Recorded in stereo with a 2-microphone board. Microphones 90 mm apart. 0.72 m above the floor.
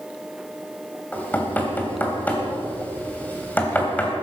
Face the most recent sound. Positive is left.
turn(degrees=15)  # may be behind; listen again after turning